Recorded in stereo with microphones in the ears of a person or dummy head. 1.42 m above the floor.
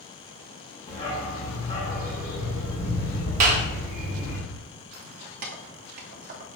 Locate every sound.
0.9 s a dog barking: 35° left (ahead or behind), 1.8 m
3.4 s a clap: 50° right (ahead or behind), 1.0 m
4.9 s keys jangling: 45° right (ahead or behind), 0.6 m